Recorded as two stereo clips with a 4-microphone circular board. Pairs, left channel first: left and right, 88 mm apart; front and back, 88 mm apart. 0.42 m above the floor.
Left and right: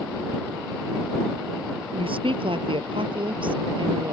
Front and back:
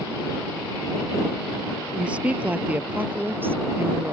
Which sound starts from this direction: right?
A woman speaking, at 1.9 s.